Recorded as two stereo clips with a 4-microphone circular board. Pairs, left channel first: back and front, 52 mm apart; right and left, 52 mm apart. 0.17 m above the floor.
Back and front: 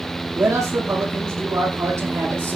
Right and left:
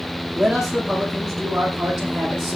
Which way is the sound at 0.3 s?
5° left.